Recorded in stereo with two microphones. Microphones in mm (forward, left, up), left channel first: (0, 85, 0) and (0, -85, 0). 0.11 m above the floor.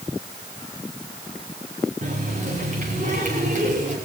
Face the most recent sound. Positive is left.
turn(degrees=-45)  # may be behind; listen again after turning